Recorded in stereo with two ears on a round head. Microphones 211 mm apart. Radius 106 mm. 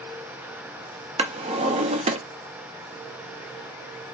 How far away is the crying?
No crying in this recording.